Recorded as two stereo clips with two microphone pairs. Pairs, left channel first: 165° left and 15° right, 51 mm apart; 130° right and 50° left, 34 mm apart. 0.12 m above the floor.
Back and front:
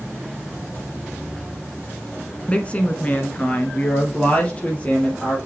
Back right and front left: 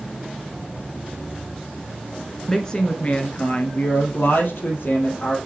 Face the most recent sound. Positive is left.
turn(degrees=-135)